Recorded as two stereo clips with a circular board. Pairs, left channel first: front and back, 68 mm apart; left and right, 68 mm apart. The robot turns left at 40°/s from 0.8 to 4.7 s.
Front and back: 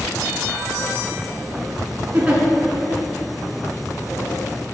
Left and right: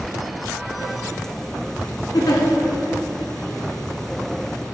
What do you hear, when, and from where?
2.1 s a giggle: 115° left, 1.8 m; by 2.4 s 105° left, 1.8 m